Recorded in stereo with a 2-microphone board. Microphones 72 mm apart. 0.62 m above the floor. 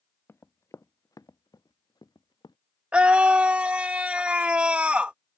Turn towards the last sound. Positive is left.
turn(degrees=-15)  # may be behind; listen again after turning